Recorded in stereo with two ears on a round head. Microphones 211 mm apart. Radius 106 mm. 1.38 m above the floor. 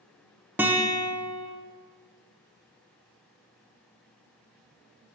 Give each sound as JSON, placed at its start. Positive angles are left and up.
{"t": 0.6, "sound": "a guitar", "side_deg": -10, "distance_m": 0.7}